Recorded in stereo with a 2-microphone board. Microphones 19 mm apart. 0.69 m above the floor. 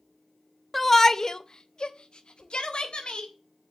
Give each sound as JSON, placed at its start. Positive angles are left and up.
{"t": 0.7, "sound": "a shout", "side_deg": 10, "distance_m": 0.8}